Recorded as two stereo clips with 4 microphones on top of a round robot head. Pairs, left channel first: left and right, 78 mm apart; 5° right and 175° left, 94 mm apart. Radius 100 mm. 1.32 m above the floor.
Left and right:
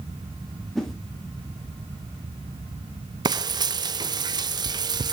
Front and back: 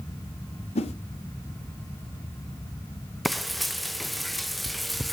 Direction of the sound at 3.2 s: 95° right.